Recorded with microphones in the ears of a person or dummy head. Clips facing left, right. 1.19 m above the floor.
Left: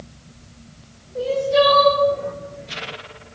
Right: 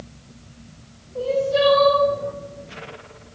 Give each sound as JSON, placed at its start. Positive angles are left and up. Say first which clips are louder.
{"t": 1.1, "sound": "crying", "louder": "left 2 dB", "side_deg": 25, "distance_m": 3.0}